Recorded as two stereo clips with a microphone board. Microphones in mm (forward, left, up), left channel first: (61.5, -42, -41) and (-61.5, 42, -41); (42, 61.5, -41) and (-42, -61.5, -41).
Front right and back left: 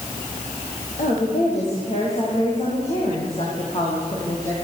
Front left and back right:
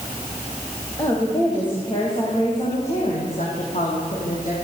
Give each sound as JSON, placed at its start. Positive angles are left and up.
{"t": 1.0, "sound": "a woman speaking", "azimuth_deg": -10, "distance_m": 7.5}